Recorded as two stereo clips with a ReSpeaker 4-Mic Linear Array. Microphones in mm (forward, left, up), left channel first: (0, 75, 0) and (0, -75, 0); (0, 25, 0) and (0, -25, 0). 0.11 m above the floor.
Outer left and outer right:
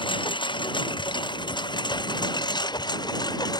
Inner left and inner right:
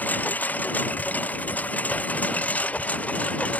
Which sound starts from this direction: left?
A lawn mower, at 0.0 s.